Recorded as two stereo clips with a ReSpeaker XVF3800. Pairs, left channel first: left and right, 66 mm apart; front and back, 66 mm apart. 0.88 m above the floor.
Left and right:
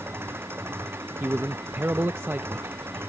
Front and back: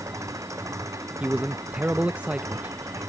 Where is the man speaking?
125° right.